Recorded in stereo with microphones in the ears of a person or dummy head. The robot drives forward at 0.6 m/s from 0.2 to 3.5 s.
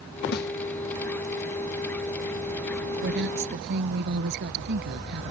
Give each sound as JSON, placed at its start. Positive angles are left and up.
{"t": 0.3, "sound": "a snare drum", "side_deg": 55}
{"t": 3.0, "sound": "a woman speaking", "side_deg": -60}